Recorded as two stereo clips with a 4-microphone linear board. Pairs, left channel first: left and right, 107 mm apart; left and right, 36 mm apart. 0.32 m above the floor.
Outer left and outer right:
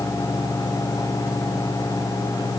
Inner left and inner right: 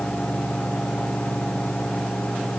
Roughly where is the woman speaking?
I don't hear a woman speaking.